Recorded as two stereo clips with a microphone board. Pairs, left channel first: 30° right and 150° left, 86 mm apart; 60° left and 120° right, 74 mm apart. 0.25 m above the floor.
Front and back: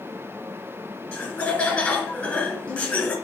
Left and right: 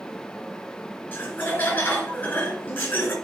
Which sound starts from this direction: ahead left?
Laughter, at 1.1 s.